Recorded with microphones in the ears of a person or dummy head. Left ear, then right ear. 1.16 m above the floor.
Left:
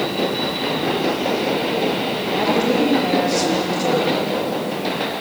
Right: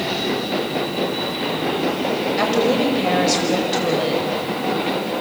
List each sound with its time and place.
2.4 s a woman speaking: 45° right (ahead or behind), 7 m; by 4.4 s 25° right (ahead or behind), 6.5 m